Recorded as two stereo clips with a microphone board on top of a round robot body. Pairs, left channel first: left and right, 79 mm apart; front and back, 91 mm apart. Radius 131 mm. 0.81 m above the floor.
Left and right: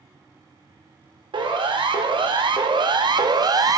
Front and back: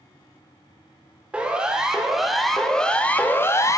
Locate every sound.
1.3 s a siren: 105° right, 2.5 m; by 3.8 s 55° right, 1.4 m